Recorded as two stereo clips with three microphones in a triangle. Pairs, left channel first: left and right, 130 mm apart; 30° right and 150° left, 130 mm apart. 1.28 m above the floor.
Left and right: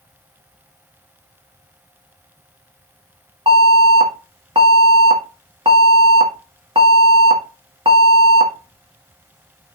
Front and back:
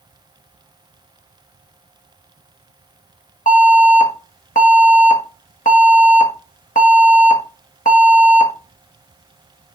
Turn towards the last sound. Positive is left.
turn(degrees=-40)